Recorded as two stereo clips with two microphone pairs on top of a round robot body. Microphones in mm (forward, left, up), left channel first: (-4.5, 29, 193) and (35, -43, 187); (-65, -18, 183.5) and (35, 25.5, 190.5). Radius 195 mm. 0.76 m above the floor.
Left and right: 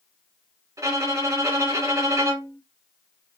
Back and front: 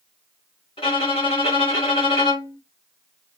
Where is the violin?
110° right, 3 m.